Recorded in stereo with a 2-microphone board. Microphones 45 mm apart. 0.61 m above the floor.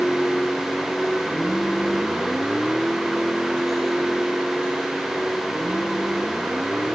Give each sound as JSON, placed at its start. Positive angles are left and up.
{"t": 0.0, "sound": "a vehicle", "side_deg": 0}